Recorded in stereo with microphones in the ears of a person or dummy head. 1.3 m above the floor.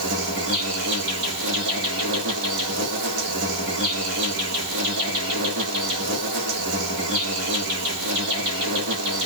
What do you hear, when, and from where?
0.0 s an insect: 60° right (ahead or behind), 2 m